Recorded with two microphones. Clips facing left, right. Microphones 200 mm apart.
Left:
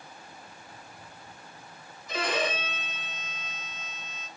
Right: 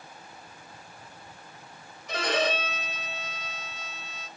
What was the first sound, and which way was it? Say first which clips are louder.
A violin: right 2 dB; 75° right (ahead or behind).